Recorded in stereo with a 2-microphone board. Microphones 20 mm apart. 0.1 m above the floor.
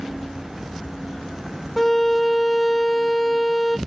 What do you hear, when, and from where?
1.8 s a violin: 10° left (ahead or behind), 0.8 m